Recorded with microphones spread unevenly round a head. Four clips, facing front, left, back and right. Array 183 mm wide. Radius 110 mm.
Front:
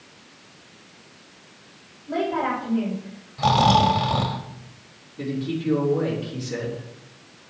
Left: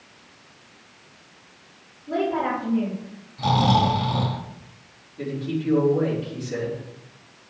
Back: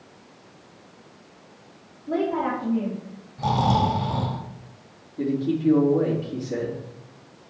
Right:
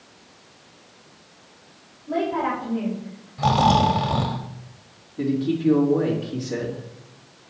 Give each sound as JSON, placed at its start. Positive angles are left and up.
{"t": 2.1, "sound": "a woman speaking", "azimuth_deg": 180, "distance_m": 4.5}
{"t": 3.4, "sound": "snoring", "azimuth_deg": -55, "distance_m": 1.4}
{"t": 5.2, "sound": "a man speaking", "azimuth_deg": -140, "distance_m": 4.0}